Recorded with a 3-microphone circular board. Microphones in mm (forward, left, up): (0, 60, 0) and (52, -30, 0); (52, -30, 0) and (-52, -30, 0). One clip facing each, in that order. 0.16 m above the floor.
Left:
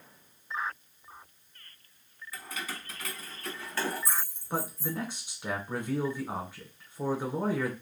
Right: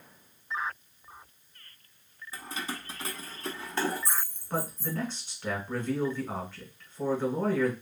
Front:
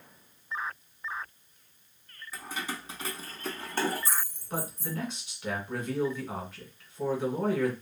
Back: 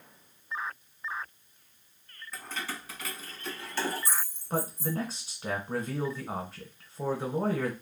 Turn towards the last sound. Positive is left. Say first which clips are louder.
# right 1 dB, back 4 dB
turn(degrees=-170)